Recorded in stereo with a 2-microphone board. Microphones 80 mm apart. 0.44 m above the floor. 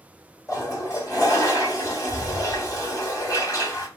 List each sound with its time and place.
0.5 s a toilet flushing: 45° left (ahead or behind), 1.5 m